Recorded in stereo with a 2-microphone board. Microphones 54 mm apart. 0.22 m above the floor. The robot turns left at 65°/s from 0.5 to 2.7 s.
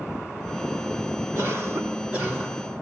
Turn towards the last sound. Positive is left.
turn(degrees=170)